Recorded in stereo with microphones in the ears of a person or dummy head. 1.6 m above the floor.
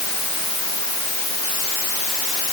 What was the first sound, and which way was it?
Only background noise.